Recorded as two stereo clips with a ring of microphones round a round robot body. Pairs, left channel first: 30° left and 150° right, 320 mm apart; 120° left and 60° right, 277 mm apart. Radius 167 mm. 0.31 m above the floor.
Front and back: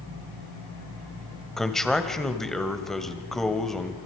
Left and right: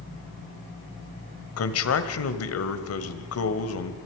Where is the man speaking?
120° left, 1.9 m.